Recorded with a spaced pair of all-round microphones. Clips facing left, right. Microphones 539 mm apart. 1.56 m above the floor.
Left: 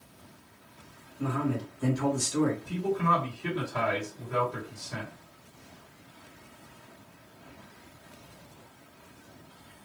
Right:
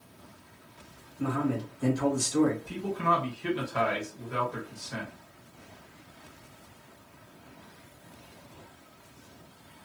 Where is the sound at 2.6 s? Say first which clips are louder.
Left 2 dB; centre (ahead or behind), 1.5 m.